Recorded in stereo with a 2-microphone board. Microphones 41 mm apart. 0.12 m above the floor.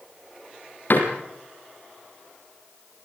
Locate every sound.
0.9 s a door slam: 55° left (ahead or behind), 4 m